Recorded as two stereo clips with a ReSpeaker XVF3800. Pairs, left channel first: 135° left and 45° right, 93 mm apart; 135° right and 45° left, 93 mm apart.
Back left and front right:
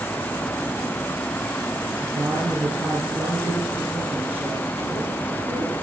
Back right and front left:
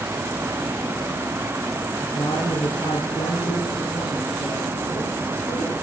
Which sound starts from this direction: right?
A woman speaking, at 2.0 s.